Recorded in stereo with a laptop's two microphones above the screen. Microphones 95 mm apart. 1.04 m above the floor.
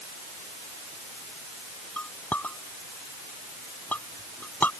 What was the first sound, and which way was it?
A clink, 20° left (ahead or behind).